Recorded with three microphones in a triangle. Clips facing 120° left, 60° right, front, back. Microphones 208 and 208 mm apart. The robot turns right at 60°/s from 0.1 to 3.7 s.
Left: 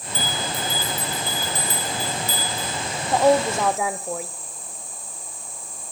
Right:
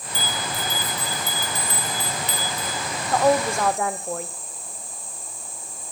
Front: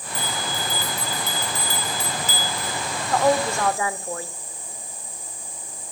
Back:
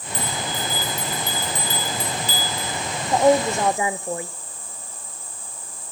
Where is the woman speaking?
165° left, 0.8 m; by 4.3 s 160° right, 0.8 m.